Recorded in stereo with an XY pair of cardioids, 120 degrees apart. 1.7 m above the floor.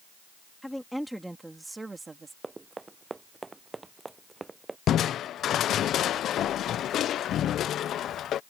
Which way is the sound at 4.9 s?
60° left.